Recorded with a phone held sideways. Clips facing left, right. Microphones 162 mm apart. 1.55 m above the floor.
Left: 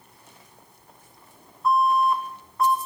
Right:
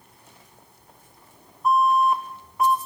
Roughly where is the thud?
I don't hear a thud.